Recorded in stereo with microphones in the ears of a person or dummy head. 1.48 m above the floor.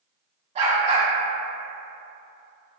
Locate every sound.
0.6 s a dog barking: 45° right (ahead or behind), 1.6 m